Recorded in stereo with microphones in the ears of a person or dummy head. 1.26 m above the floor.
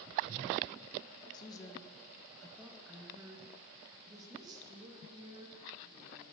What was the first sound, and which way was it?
A woman speaking, 25° left (ahead or behind).